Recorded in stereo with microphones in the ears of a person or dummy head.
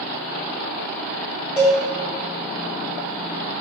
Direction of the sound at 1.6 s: 5° left (ahead or behind).